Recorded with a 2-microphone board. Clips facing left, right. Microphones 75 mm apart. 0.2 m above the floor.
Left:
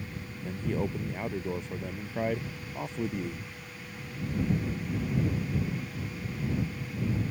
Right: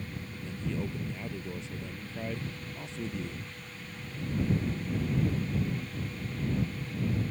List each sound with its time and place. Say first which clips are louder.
0.4 s a man speaking: left 4 dB; 50° left (ahead or behind)